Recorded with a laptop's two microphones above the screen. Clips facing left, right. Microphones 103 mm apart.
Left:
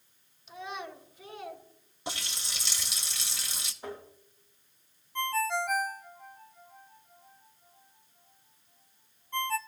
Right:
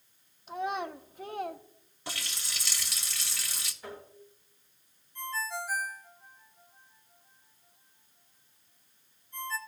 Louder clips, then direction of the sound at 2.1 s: Left 2 dB; 20° left (ahead or behind).